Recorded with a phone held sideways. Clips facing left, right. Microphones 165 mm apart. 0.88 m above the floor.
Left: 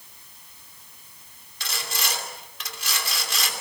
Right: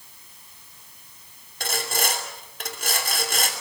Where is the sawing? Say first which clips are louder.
Right 6 dB; 50° right (ahead or behind), 3 m.